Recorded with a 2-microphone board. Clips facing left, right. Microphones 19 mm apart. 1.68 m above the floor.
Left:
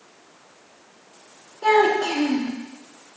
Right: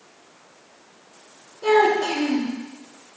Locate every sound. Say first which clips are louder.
1.6 s a child speaking: even; 75° left (ahead or behind), 2.5 m